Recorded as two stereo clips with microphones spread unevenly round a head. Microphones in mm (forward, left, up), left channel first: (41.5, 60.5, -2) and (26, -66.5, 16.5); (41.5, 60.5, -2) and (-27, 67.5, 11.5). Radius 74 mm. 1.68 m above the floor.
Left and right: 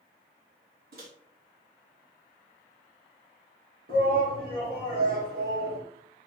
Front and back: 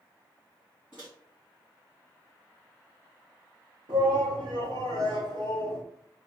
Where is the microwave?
100° right, 2.5 m.